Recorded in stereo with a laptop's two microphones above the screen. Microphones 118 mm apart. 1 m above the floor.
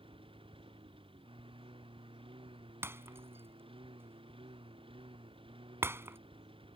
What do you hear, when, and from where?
0.0 s a lawn mower: 50° right (ahead or behind)
2.8 s breaking glass: 20° right (ahead or behind)